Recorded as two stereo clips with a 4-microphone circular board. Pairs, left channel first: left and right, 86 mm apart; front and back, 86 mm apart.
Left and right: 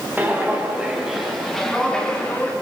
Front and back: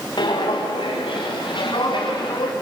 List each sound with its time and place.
0.2 s footsteps: 20° right, 4.5 m; by 2.5 s 15° left, 5.5 m